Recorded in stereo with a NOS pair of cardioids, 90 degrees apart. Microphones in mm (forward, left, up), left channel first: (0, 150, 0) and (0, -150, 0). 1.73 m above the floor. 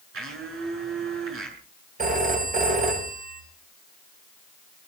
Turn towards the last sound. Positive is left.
turn(degrees=-30)